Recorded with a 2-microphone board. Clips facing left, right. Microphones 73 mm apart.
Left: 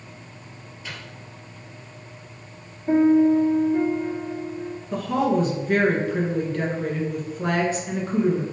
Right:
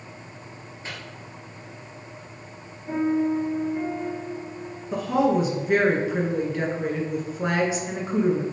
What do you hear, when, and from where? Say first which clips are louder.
0.8 s a microwave: even; 35° right (ahead or behind), 2.5 m
2.9 s a piano: left 7 dB; 45° left (ahead or behind), 2.5 m
4.9 s a woman speaking: right 1 dB; 10° right (ahead or behind), 1.8 m